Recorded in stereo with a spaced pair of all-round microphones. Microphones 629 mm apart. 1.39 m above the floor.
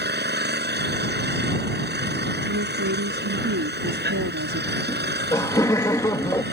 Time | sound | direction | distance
0.0 | an engine running | 15° right (ahead or behind) | ?
2.5 | a woman speaking | 25° right (ahead or behind) | ?
4.9 | laughter | 5° left (ahead or behind) | ?